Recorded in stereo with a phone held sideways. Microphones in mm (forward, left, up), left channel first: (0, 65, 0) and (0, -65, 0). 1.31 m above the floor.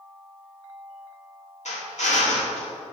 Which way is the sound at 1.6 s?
65° left (ahead or behind).